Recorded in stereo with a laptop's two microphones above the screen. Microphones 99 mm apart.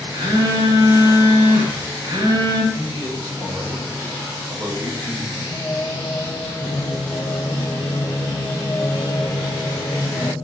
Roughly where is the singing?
Left.